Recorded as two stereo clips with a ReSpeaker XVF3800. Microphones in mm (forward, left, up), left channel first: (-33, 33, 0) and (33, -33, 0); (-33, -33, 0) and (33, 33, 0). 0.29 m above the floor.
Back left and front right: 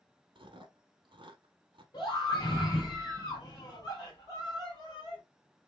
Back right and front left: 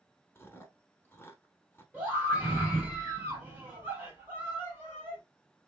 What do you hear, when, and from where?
0.3 s chewing: 70° right, 0.8 m
1.9 s a scream: 110° left, 2 m